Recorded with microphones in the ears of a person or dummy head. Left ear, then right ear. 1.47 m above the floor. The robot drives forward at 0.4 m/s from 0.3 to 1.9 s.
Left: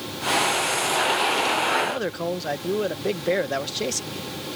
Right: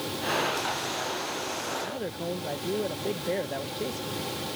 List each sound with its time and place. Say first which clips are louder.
1.8 s a man speaking: left 7 dB; 45° left (ahead or behind); by 4.3 s 50° left (ahead or behind)